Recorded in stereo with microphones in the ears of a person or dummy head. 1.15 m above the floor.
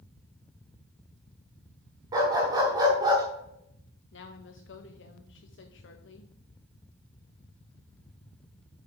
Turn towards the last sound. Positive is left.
turn(degrees=60)  # may be behind; listen again after turning